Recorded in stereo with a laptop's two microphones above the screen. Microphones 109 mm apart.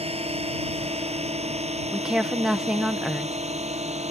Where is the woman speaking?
5° right (ahead or behind).